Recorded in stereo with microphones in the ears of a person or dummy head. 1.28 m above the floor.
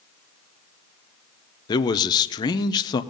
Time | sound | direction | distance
1.7 | a man speaking | 20° left (ahead or behind) | 0.7 m